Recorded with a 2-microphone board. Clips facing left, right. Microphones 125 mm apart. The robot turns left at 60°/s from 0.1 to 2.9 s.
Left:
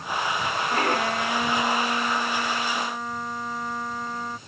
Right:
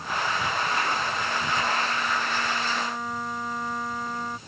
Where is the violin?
135° left; by 4.4 s straight ahead.